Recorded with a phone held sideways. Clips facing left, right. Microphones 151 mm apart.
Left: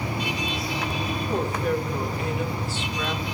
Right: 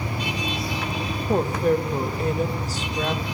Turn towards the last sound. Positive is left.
turn(degrees=-40)  # may be behind; listen again after turning